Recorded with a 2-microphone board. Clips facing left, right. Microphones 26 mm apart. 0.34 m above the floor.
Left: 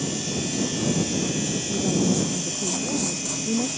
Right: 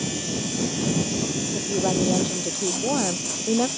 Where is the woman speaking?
85° right.